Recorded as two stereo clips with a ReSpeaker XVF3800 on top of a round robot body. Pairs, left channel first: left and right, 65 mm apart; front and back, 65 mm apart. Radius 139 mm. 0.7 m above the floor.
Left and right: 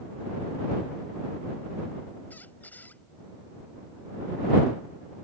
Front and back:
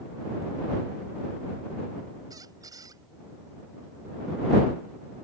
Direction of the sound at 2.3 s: 155° left.